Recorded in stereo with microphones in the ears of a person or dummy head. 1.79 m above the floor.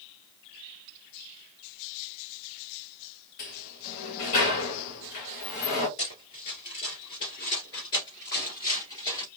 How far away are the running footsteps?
About 2.0 m.